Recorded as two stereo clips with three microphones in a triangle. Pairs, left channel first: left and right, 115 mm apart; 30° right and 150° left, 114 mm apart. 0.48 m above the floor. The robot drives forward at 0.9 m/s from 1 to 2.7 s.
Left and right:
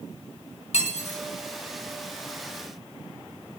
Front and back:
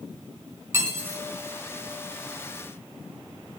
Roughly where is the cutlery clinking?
Left.